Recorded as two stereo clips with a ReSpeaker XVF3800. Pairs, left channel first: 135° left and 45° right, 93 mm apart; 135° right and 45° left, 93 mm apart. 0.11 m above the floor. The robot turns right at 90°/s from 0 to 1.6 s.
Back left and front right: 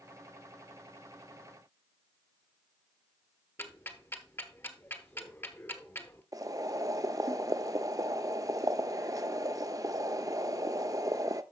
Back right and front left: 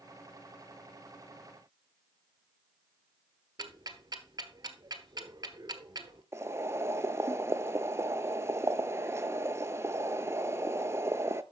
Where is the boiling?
5° right, 0.5 m.